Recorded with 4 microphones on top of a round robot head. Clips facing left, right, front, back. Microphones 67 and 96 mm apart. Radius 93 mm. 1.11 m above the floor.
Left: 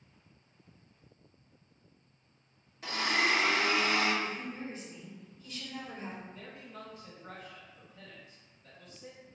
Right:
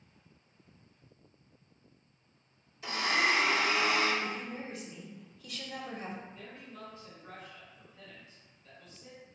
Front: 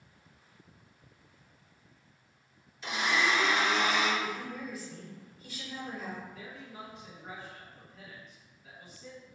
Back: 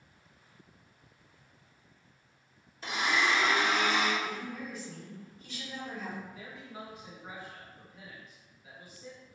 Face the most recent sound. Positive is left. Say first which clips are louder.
# left 1 dB, even
turn(degrees=100)